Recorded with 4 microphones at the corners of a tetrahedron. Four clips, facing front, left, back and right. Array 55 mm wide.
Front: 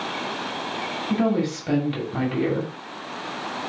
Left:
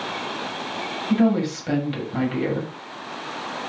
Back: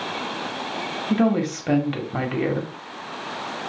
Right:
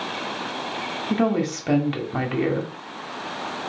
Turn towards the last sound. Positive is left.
turn(degrees=-145)